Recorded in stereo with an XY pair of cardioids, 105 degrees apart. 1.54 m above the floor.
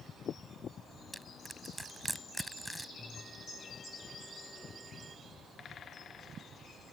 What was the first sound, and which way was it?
Crushing, 5° right.